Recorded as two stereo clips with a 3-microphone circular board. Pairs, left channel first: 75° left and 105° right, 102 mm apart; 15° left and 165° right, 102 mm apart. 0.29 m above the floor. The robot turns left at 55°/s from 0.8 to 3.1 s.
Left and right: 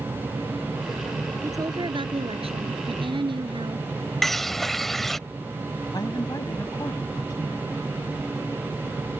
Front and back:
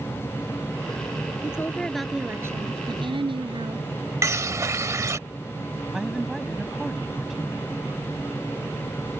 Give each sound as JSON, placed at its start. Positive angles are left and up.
{"t": 1.4, "sound": "a woman speaking", "azimuth_deg": -45}
{"t": 4.2, "sound": "a bird", "azimuth_deg": 160}
{"t": 5.9, "sound": "a woman speaking", "azimuth_deg": 110}